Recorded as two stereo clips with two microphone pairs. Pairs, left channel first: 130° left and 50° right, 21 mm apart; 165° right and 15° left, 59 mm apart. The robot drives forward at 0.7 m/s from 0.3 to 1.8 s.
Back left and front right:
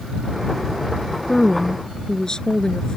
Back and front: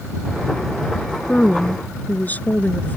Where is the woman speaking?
150° left; by 3.0 s 155° left.